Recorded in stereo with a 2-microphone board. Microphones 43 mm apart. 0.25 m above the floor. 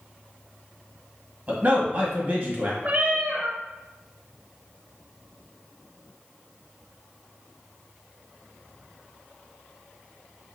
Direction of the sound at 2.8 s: 35° right (ahead or behind).